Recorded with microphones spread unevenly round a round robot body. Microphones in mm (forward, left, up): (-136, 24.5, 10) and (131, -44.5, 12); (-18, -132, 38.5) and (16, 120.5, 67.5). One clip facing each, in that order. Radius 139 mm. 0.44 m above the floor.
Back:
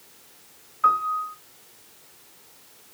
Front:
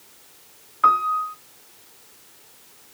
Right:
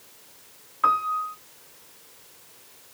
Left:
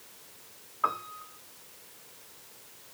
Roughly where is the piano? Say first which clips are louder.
Front 4 dB, right 6 dB; ahead right.